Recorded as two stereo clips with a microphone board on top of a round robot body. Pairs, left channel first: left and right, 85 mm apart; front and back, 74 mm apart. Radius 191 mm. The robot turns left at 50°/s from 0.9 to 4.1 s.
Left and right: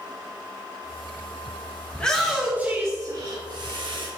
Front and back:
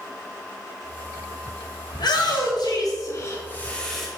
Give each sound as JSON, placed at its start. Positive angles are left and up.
{"t": 1.9, "sound": "a shout", "azimuth_deg": 15, "distance_m": 2.5}